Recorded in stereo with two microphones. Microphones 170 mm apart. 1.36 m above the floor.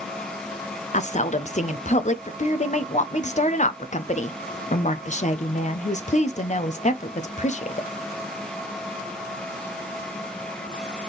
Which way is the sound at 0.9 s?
45° left (ahead or behind).